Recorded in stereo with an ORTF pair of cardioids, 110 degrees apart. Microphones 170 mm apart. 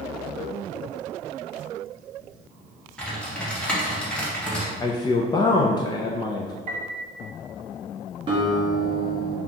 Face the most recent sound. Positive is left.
turn(degrees=-30)